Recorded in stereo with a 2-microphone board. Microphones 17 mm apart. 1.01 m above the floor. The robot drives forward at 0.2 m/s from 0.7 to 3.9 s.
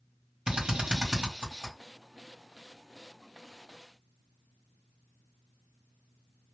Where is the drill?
65° right (ahead or behind), 1.6 m.